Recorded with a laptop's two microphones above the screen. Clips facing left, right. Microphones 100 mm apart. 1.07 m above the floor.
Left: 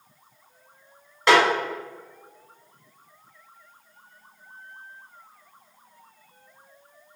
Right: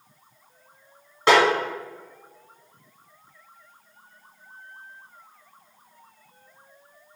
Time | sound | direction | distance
1.3 | a snare drum | 25° right (ahead or behind) | 1.9 m